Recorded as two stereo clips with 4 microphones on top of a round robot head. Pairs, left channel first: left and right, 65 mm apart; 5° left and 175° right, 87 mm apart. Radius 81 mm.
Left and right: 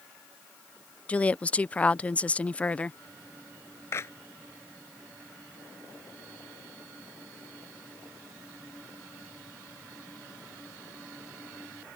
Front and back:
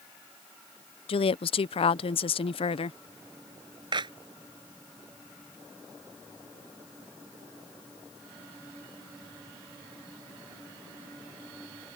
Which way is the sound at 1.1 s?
15° left.